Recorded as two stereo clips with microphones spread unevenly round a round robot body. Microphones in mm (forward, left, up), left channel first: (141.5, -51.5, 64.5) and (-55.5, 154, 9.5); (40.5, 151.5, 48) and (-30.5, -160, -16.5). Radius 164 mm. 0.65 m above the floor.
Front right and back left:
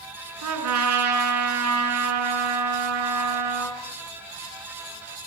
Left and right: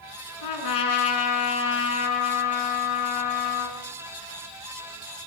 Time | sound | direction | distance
0.4 | a trumpet | 105° left | 7 m